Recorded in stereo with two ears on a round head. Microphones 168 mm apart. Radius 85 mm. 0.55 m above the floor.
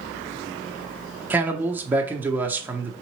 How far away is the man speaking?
About 0.6 m.